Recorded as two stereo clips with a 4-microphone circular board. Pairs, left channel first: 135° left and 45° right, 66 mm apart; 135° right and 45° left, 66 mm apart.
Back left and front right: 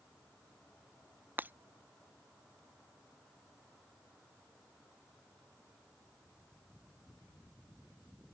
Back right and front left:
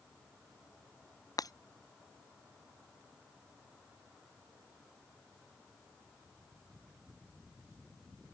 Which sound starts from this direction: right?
Breaking glass, at 1.4 s.